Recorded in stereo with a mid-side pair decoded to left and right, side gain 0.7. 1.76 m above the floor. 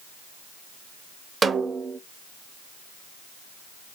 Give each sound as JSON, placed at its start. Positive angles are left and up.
{"t": 1.4, "sound": "a snare drum", "azimuth_deg": -20, "distance_m": 0.5}